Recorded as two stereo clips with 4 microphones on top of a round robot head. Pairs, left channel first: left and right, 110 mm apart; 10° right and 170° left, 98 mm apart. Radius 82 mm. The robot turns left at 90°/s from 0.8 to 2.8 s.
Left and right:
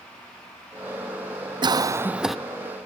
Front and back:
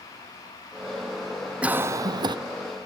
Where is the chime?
No chime in this recording.